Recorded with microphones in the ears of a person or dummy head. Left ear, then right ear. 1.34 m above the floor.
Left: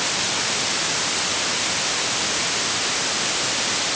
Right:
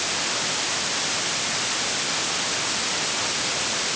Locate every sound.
Only background noise.